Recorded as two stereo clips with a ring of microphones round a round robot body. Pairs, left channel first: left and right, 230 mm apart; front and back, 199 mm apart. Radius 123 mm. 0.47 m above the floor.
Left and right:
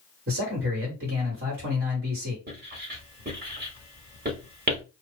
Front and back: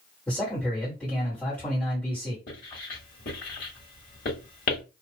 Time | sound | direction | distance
0.3 | a man speaking | 85° right | 1.7 m
2.5 | writing | 40° right | 1.9 m